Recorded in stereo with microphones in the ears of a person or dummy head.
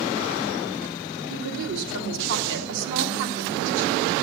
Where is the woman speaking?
70° right (ahead or behind), 2 m.